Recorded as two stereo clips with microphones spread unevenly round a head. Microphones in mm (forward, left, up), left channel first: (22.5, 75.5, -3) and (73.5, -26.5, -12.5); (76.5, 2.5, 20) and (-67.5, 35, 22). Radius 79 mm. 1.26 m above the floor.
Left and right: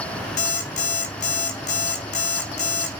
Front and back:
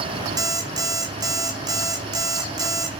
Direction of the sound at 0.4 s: 100° left.